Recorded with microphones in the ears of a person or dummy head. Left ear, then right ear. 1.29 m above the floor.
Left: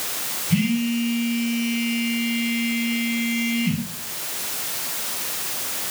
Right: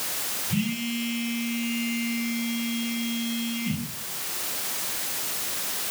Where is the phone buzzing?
40° left (ahead or behind), 1.9 m.